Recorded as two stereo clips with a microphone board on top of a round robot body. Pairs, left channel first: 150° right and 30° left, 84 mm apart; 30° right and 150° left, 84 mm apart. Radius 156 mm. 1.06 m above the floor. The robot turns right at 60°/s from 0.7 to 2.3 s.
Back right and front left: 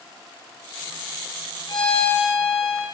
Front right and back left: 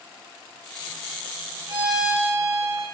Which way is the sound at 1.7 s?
170° left.